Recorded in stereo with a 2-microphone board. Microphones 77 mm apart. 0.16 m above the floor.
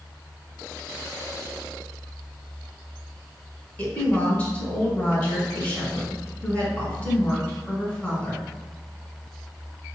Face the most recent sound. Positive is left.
turn(degrees=15)  # may be behind; listen again after turning